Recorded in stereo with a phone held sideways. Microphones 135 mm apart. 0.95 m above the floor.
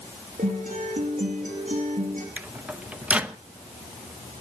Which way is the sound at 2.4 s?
10° right (ahead or behind).